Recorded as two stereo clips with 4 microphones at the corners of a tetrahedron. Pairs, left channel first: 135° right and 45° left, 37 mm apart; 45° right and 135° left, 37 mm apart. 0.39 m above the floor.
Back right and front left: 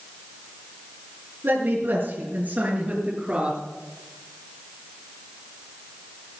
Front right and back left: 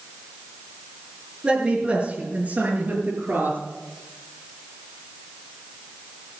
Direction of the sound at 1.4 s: 65° left.